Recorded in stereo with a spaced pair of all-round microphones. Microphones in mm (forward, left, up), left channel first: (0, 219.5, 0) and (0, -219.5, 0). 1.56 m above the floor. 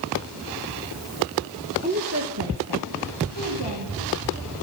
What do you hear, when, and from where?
1.8 s a woman speaking: 15° right (ahead or behind), 1.4 m; by 4.2 s 85° right, 3.5 m